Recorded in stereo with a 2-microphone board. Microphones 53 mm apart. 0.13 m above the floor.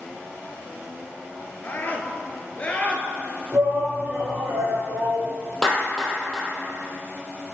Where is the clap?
15° left (ahead or behind), 3 m.